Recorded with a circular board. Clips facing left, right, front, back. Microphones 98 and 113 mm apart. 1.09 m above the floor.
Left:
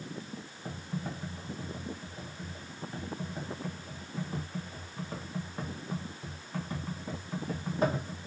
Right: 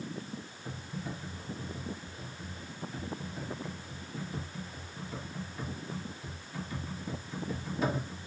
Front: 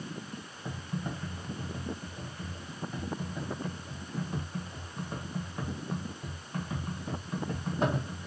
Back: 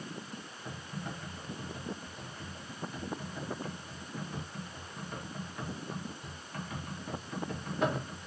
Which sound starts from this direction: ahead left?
Typing on a keyboard, at 0.7 s.